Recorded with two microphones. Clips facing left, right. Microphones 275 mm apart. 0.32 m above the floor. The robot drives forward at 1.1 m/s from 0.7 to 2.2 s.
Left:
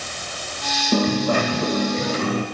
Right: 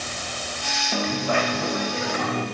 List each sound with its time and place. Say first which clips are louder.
0.9 s a dropped coin: left 6 dB; 50° left (ahead or behind), 4 m; by 2.5 s 35° left (ahead or behind), 5 m